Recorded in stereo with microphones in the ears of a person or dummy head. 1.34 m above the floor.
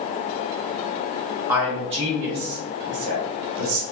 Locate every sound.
1.5 s a man speaking: 10° right (ahead or behind), 0.7 m; by 3.8 s 75° right (ahead or behind), 1.1 m